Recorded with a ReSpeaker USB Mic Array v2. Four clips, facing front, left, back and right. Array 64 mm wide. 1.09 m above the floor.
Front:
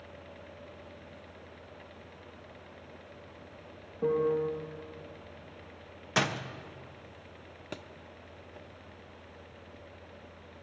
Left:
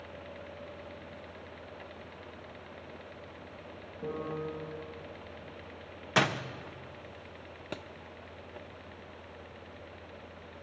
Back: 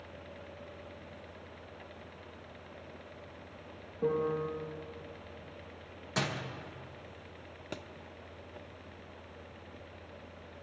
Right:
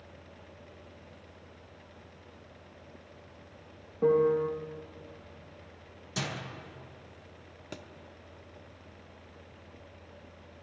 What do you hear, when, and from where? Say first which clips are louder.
4.0 s a piano: right 12 dB, front 4 dB; 80° right, 1.9 m
6.2 s a door slam: left 9 dB, front 5 dB; 65° left, 0.8 m
7.7 s a thud: left 3 dB, even; 80° left, 0.6 m